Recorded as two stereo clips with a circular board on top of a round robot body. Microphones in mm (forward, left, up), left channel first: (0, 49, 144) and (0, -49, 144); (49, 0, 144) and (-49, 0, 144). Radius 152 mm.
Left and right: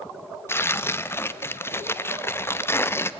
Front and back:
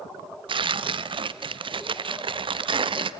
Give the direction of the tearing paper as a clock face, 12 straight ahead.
7 o'clock.